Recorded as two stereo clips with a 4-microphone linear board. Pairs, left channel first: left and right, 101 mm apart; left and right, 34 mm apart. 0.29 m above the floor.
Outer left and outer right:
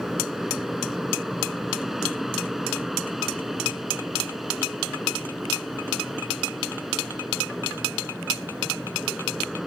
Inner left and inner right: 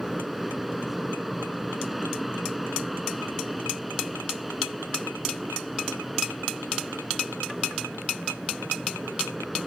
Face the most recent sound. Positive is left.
turn(degrees=-5)  # may be behind; listen again after turning